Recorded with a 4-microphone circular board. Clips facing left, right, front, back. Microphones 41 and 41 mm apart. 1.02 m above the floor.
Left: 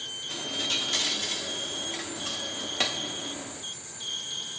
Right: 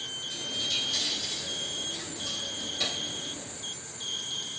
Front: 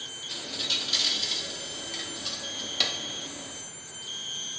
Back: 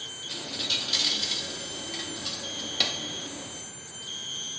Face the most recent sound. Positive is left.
turn(degrees=90)